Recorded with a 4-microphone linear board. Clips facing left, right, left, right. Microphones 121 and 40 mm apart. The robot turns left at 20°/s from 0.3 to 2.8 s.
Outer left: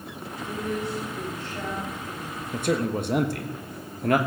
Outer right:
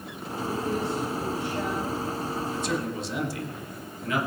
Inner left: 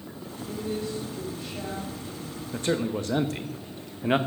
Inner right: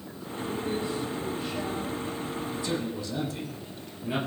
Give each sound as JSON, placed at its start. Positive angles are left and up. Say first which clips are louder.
{"t": 0.4, "sound": "a woman speaking", "louder": "outer right 2 dB, inner right 1 dB", "azimuth_deg": -145, "distance_m": 4.5}
{"t": 2.5, "sound": "a man speaking", "louder": "outer left 4 dB, inner left 8 dB", "side_deg": 50, "distance_m": 1.1}